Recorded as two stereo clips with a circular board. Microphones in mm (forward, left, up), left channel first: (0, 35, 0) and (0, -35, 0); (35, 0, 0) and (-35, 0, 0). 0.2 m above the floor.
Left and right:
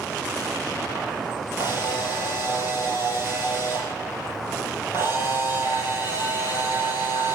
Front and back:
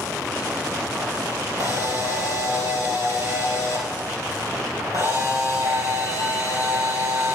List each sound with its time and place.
1.6 s a camera shutter: 140° right, 5.5 m